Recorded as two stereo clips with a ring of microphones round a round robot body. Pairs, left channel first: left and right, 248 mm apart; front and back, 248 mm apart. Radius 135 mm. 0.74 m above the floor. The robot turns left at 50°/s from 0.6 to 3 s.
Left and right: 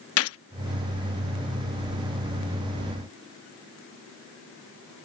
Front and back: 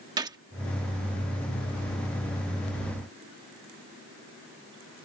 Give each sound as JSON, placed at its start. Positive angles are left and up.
{"t": 0.2, "sound": "a gunshot", "azimuth_deg": 105}